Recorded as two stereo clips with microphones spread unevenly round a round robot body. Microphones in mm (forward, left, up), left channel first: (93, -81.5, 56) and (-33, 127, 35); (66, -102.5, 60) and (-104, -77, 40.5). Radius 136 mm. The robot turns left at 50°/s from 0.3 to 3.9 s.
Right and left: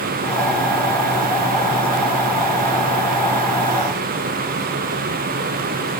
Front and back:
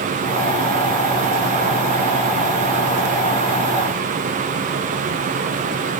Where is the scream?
I don't hear a scream.